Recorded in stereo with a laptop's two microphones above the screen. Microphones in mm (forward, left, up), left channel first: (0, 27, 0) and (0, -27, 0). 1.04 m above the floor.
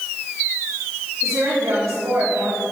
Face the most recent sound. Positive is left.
turn(degrees=-80)